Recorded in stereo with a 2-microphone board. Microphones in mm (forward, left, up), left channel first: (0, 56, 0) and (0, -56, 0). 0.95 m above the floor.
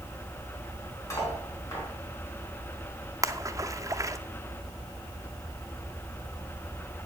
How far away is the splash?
About 0.7 m.